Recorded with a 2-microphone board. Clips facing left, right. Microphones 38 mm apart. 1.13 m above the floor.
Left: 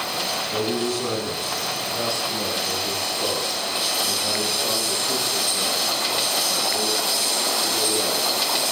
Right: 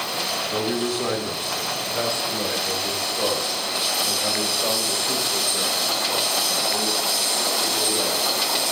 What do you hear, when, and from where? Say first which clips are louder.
0.5 s a man speaking: even; 25° right (ahead or behind), 3 m; by 8.6 s 70° right (ahead or behind), 9.5 m